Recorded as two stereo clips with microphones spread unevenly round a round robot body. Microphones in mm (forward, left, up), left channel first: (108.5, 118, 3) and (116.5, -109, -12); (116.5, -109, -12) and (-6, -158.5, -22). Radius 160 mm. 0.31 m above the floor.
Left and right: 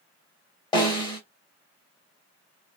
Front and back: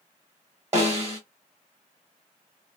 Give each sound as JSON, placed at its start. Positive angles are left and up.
{"t": 0.7, "sound": "a snare drum", "azimuth_deg": 155, "distance_m": 0.6}